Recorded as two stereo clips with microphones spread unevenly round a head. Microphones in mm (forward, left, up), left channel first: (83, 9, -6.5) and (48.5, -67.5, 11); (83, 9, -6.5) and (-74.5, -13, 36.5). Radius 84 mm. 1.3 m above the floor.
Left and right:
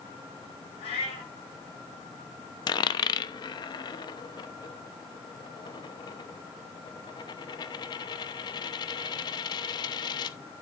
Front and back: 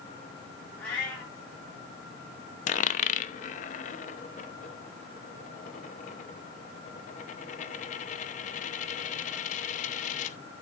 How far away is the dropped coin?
About 0.7 m.